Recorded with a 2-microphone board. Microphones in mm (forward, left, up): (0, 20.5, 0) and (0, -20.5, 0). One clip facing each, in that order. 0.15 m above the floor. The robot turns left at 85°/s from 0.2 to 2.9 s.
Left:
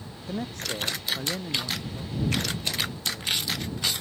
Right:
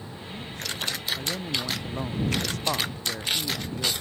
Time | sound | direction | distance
0.3 | a man speaking | 95° left | ?